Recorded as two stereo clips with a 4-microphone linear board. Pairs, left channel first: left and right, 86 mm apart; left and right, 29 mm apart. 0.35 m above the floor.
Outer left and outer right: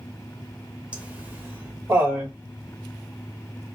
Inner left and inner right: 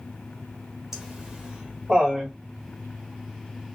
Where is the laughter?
15° right (ahead or behind), 1.2 m; by 2.3 s 35° right (ahead or behind), 1.4 m.